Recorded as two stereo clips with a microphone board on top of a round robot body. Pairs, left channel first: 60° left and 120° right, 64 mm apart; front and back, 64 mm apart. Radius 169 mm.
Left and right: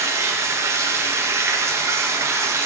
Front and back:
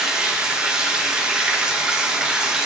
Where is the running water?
105° right, 0.9 m.